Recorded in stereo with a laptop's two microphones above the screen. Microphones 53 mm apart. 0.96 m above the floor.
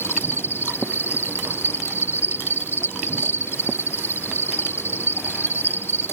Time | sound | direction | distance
0.0 | an insect | 45° left (ahead or behind) | ?